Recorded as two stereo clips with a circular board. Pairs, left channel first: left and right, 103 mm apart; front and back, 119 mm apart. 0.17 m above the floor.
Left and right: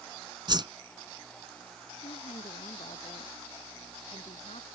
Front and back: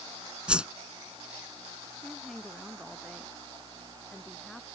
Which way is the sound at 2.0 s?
90° left.